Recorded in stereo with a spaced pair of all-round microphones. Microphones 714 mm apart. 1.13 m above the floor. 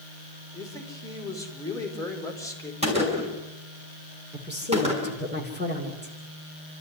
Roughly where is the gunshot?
Centre.